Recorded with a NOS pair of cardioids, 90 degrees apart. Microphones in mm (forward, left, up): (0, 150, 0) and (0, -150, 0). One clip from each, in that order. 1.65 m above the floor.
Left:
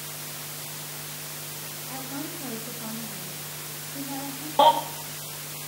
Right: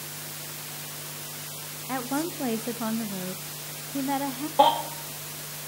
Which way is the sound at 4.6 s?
15° left.